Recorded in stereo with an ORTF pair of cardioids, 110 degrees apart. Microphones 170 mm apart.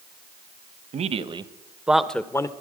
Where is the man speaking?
40° right, 1.1 m; by 2.5 s 20° left, 1.0 m.